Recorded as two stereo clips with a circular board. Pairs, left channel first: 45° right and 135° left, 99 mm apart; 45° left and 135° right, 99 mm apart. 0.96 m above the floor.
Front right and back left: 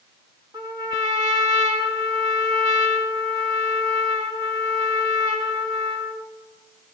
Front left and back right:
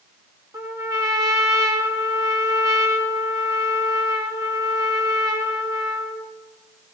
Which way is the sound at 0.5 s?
Straight behind.